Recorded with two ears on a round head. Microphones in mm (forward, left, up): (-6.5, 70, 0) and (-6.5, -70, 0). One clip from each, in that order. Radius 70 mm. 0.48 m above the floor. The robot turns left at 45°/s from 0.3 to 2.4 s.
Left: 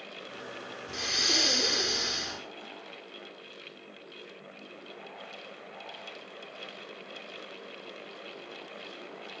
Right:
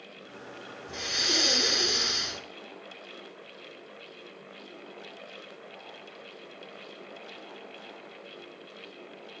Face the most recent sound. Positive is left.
turn(degrees=-40)